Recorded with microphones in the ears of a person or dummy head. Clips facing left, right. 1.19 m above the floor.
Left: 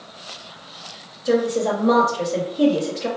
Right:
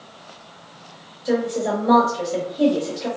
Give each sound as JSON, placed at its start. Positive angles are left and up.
{"t": 1.2, "sound": "a woman speaking", "side_deg": 0, "distance_m": 1.2}